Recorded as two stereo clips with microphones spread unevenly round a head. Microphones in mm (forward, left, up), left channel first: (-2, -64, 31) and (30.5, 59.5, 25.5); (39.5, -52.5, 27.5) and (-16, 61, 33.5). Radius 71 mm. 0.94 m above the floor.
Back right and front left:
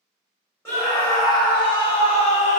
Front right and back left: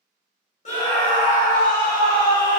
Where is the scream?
35° right, 1.6 m; by 2.6 s 80° right, 0.9 m.